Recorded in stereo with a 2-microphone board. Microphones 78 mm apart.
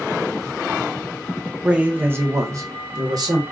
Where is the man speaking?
10° right (ahead or behind), 0.7 m; by 3.4 s 55° right (ahead or behind), 1.3 m.